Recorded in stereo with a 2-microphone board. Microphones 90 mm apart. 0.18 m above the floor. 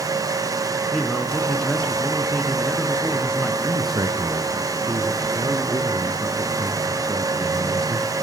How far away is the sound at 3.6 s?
About 1.9 m.